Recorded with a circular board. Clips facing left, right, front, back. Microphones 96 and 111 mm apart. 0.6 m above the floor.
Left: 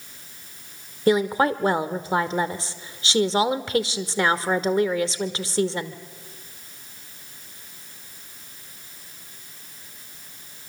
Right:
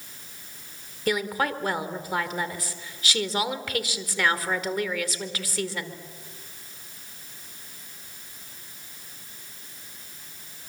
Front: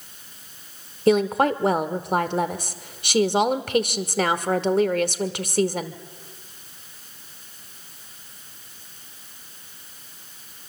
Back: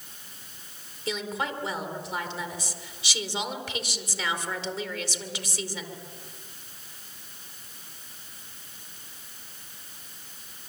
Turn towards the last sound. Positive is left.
turn(degrees=30)